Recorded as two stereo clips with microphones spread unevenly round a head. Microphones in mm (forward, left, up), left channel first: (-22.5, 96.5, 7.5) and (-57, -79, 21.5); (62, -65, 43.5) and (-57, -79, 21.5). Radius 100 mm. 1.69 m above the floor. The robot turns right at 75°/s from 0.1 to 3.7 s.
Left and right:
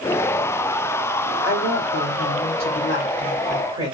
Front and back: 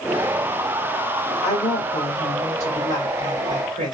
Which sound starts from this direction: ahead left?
A woman speaking, at 1.4 s.